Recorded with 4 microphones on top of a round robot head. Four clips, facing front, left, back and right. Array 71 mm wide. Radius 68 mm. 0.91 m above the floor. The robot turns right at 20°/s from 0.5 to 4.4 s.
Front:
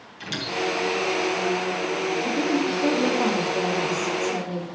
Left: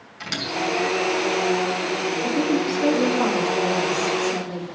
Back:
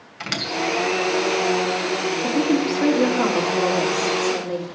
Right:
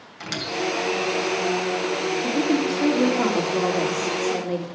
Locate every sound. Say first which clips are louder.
0.2 s a squeak: left 1 dB, back 2 dB; 165° right, 2.5 m; by 1.1 s 155° right, 2.5 m
2.2 s a woman speaking: even, back 5 dB; 160° right, 3 m; by 4.7 s 120° right, 3 m